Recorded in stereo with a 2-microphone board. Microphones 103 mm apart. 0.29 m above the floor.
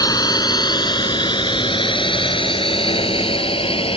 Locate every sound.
0.0 s a drone: 40° left (ahead or behind); by 4.0 s 65° left (ahead or behind)